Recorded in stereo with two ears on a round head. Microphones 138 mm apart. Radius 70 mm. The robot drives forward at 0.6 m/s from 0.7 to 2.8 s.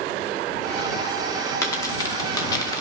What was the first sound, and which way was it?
A dropped coin, 20° left (ahead or behind).